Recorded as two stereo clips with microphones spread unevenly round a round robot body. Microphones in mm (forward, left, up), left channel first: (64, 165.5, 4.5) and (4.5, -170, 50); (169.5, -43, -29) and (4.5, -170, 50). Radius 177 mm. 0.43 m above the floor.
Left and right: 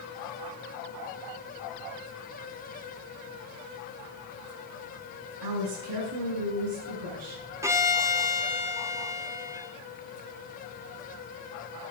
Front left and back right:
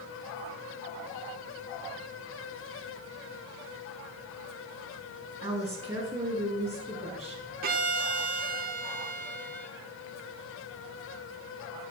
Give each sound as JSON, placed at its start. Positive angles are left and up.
{"t": 5.4, "sound": "a woman speaking", "azimuth_deg": -80, "distance_m": 6.0}
{"t": 7.6, "sound": "a violin", "azimuth_deg": 175, "distance_m": 1.0}